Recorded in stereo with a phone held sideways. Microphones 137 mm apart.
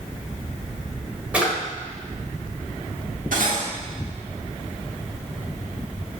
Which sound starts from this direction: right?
Cutlery clinking, at 3.3 s.